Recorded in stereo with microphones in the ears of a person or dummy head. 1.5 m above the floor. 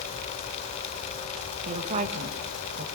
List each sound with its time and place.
1.6 s a woman speaking: 35° right (ahead or behind), 2.0 m